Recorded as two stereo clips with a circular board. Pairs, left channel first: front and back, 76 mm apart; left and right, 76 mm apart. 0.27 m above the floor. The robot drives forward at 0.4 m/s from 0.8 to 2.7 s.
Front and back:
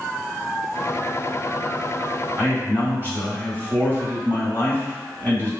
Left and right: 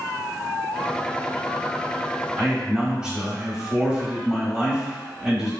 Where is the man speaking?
150° right, 1.2 m; by 5.5 s 155° right, 1.3 m.